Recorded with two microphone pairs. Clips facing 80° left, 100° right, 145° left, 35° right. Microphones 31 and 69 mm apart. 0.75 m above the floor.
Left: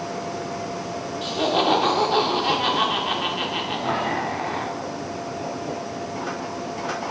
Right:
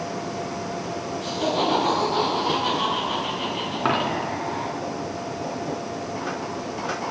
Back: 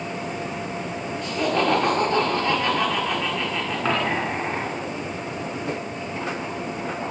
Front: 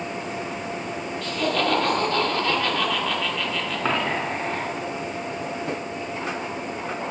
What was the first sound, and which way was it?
Laughter, 80° left.